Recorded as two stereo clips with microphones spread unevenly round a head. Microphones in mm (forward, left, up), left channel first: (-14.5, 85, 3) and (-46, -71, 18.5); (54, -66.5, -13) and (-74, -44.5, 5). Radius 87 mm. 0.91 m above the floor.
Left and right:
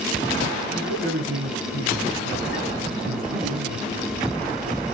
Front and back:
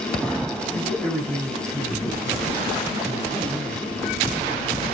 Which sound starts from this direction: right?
A man speaking, at 0.7 s.